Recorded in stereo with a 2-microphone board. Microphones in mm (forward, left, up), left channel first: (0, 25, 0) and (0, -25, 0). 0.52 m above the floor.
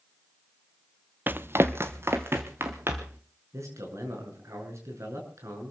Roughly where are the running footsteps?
Right.